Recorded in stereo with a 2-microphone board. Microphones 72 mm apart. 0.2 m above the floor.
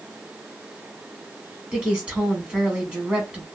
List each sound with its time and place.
1.7 s a woman speaking: 15° right (ahead or behind), 1.8 m